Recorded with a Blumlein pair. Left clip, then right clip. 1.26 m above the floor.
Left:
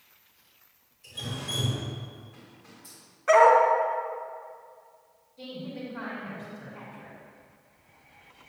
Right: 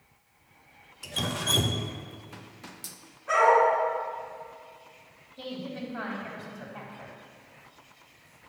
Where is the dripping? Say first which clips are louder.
Right 7 dB; 45° right, 0.8 m.